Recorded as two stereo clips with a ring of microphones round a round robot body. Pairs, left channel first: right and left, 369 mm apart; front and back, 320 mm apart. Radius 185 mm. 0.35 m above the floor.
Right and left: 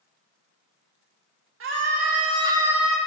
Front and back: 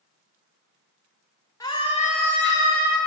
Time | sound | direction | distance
1.6 | a scream | 70° left | 1.5 m